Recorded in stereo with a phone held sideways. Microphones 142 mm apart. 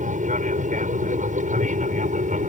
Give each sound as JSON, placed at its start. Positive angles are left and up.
{"t": 0.0, "sound": "an aircraft", "side_deg": -65}